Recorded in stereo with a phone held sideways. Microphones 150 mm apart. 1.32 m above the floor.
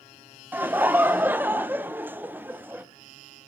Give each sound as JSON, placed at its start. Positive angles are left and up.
{"t": 0.5, "sound": "laughter", "side_deg": -15, "distance_m": 0.5}